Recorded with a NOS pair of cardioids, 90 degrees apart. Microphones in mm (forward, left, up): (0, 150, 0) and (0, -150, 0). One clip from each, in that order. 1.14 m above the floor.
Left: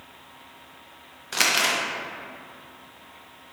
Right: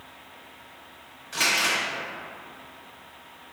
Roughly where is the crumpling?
Ahead left.